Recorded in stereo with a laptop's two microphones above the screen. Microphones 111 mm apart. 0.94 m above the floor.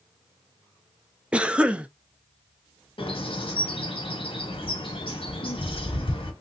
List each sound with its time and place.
1.3 s a cough: 10° right (ahead or behind), 0.6 m
3.0 s a bird: 60° left (ahead or behind), 1.2 m